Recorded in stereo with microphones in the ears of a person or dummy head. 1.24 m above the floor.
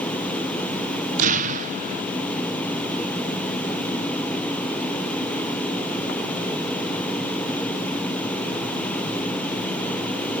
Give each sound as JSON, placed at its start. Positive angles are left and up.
{"t": 1.2, "sound": "an explosion", "side_deg": -45, "distance_m": 0.5}